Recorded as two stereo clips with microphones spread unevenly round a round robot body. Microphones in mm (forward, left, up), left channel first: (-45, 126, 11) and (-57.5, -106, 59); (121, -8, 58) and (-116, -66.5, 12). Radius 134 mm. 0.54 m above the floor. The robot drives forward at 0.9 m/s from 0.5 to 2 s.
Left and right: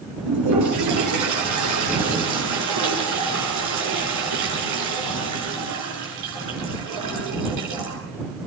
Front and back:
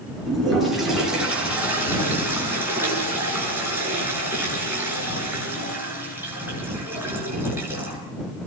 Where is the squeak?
No squeak in this recording.